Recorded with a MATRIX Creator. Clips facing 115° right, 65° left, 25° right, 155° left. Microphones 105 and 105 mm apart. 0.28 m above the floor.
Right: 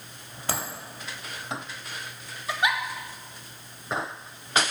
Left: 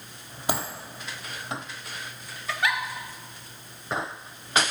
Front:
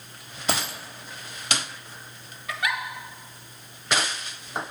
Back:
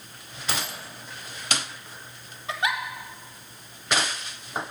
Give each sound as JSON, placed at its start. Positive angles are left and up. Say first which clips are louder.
{"t": 0.5, "sound": "a dropped coin", "louder": "left 3 dB, front 4 dB", "azimuth_deg": -5, "distance_m": 1.3}
{"t": 2.5, "sound": "a giggle", "louder": "right 1 dB, back 1 dB", "azimuth_deg": -165, "distance_m": 0.6}